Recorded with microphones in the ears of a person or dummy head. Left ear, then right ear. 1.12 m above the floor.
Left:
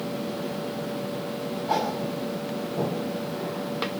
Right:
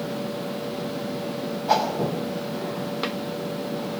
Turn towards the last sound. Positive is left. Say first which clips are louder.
# right 5 dB
turn(degrees=-40)  # may be behind; listen again after turning